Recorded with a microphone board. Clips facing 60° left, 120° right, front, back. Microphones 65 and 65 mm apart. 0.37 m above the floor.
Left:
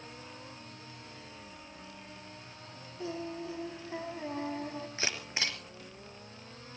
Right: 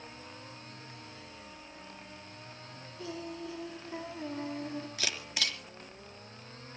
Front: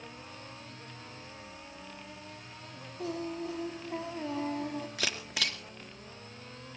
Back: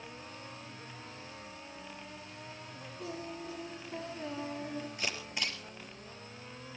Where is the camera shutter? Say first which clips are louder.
Left 4 dB, front 2 dB; straight ahead, 3.5 m.